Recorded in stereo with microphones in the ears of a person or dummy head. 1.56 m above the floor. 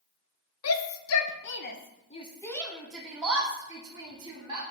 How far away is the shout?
About 0.9 m.